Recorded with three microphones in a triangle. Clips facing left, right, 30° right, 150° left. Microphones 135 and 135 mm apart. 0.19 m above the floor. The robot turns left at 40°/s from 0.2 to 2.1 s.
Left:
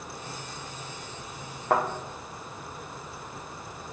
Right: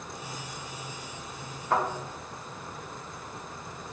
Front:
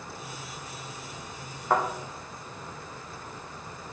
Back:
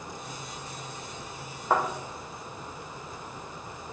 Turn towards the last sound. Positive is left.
turn(degrees=50)